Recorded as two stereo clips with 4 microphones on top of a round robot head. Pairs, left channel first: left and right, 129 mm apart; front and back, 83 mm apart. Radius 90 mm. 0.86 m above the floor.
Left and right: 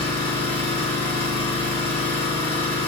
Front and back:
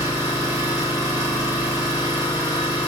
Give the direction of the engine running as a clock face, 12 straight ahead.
11 o'clock.